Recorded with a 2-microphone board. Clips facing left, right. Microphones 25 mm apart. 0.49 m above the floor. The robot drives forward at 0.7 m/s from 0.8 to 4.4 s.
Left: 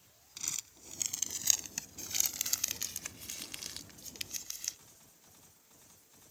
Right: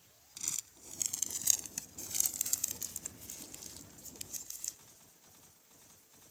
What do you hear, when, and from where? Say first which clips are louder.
0.4 s crumpling: left 1 dB; 20° left (ahead or behind); by 4.8 s 45° left (ahead or behind)